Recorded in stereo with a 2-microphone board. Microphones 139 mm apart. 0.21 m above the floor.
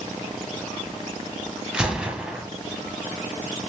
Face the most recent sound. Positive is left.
turn(degrees=-5)  # may be behind; listen again after turning